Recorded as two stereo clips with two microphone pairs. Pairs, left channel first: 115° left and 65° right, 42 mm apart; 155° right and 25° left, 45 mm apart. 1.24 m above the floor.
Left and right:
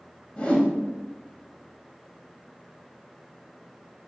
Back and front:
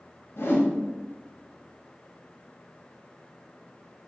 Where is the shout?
I don't hear a shout.